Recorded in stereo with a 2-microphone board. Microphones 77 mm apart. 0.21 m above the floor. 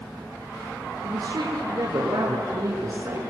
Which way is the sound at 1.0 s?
55° right (ahead or behind).